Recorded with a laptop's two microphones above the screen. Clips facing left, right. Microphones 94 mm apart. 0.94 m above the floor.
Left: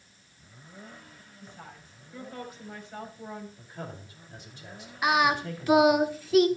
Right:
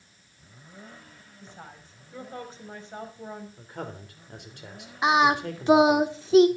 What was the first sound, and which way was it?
A woman speaking, 25° right (ahead or behind).